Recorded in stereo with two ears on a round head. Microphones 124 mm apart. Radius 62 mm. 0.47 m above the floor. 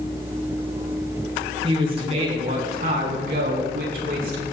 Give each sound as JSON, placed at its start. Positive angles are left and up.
{"t": 1.6, "sound": "a man speaking", "side_deg": -35, "distance_m": 4.0}